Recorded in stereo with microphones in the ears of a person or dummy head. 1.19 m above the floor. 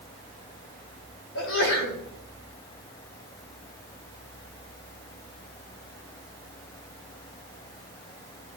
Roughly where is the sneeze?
Left.